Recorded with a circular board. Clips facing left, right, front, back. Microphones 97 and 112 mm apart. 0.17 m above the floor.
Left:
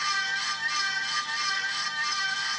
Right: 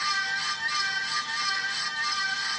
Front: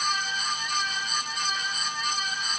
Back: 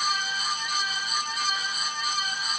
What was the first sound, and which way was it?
Only background noise.